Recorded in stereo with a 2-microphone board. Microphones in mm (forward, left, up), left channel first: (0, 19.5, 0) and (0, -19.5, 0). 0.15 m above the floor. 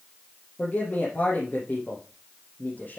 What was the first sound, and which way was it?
A man speaking, 50° left (ahead or behind).